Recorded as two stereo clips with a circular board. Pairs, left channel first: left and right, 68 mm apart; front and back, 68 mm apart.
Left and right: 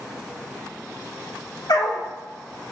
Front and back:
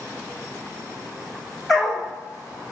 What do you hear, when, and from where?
1.7 s a dog barking: 90° left, 2 m